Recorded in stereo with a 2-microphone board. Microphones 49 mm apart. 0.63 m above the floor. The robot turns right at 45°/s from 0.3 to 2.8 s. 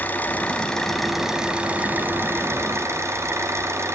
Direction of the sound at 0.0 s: 145° left.